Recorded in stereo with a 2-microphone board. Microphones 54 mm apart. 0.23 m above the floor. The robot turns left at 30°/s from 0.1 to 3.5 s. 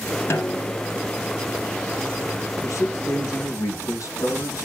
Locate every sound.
0.3 s a snare drum: 45° left (ahead or behind), 1.5 m; by 0.8 s 60° left (ahead or behind), 1.5 m
2.6 s a man speaking: 65° left (ahead or behind), 3 m; by 4.7 s 70° left (ahead or behind), 3 m